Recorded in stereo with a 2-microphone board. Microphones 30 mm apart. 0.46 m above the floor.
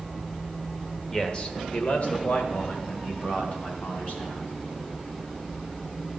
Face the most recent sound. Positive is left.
turn(degrees=65)  # may be behind; listen again after turning